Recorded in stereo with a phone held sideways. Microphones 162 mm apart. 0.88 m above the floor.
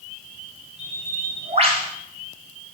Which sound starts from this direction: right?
A bird, at 0.8 s.